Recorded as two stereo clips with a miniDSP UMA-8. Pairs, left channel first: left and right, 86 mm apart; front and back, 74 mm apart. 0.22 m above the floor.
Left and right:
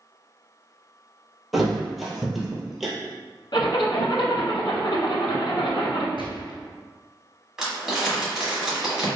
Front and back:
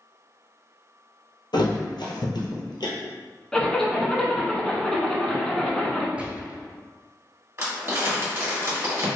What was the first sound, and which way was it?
A thud, straight ahead.